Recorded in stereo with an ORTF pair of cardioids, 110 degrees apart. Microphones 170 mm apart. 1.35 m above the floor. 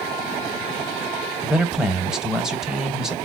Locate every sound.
1.4 s a man speaking: 5° right, 0.6 m